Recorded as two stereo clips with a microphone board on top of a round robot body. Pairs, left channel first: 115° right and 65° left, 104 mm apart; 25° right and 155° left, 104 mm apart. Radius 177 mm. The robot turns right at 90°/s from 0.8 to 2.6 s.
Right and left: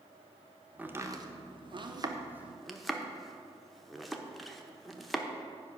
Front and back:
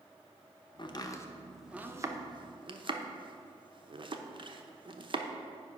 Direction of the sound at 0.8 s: 5° right.